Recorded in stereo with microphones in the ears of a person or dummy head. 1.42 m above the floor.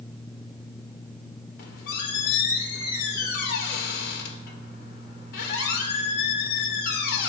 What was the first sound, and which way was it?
A squeak, 60° left (ahead or behind).